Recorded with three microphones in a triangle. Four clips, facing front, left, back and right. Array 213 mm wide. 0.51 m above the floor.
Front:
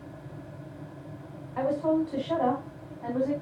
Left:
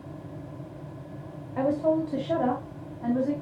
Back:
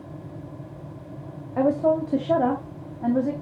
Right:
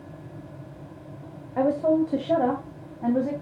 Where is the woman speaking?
155° right, 1.8 m; by 3.3 s 140° right, 3 m.